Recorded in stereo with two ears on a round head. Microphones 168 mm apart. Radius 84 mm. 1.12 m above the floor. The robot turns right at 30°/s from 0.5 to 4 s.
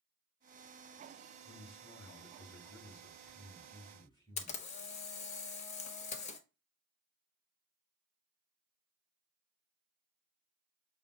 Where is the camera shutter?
35° left (ahead or behind), 0.5 m.